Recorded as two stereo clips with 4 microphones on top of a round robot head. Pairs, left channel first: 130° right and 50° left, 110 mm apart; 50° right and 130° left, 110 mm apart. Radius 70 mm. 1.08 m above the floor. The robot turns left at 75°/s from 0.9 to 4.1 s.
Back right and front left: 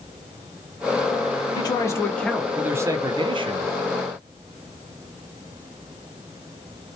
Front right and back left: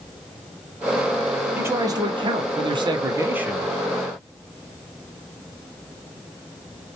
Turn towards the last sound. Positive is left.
turn(degrees=10)